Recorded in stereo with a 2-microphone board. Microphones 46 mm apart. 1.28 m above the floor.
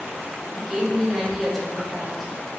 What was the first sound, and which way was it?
A woman speaking, centre (ahead or behind).